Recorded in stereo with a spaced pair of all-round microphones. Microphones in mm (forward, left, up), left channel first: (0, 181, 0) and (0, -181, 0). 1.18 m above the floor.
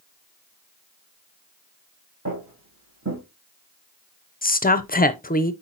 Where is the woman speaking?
25° left (ahead or behind), 0.6 m.